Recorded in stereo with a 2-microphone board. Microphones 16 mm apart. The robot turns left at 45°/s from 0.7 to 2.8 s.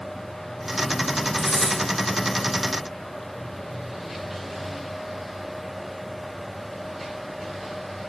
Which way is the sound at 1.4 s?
30° left (ahead or behind).